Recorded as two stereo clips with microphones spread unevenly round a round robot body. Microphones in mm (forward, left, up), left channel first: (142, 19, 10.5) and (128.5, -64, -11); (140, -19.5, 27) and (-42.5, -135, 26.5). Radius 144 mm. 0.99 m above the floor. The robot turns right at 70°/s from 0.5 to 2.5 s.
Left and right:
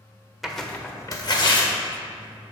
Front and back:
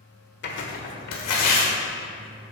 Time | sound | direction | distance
0.4 | tearing paper | 5° right | 1.4 m